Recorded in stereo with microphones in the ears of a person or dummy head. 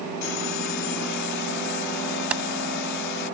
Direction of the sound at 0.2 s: 65° left (ahead or behind).